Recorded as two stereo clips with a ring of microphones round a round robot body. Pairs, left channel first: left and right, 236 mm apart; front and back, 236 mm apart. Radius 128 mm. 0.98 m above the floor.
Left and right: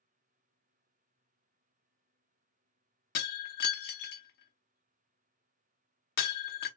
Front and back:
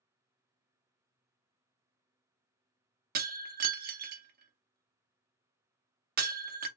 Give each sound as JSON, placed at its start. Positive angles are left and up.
{"t": 3.1, "sound": "breaking glass", "azimuth_deg": 135, "distance_m": 0.6}